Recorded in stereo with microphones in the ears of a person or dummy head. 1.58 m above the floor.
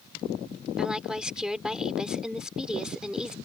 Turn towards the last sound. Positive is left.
turn(degrees=0)  # may be behind; listen again after turning